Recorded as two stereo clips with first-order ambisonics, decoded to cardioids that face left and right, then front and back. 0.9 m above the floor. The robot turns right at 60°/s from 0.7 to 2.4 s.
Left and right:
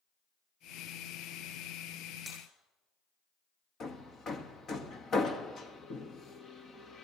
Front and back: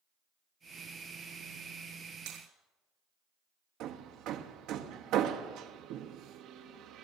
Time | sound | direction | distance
2.3 | breaking glass | 170° left | 7 m
3.8 | hammering | 150° left | 0.9 m